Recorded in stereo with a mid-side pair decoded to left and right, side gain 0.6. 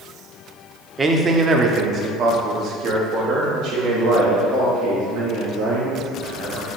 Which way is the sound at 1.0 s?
25° right.